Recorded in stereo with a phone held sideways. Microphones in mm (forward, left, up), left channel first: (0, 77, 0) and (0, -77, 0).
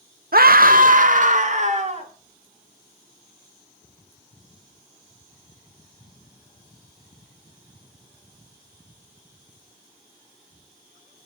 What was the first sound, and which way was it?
A scream, 75° right (ahead or behind).